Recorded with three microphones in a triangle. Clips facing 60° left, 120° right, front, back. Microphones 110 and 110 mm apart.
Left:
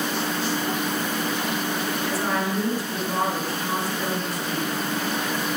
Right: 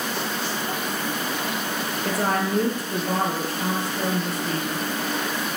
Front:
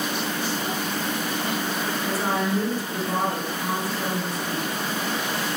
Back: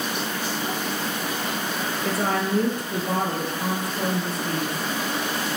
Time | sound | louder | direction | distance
2.0 | a woman speaking | right 4 dB, back 1 dB | 155° right | 5.5 m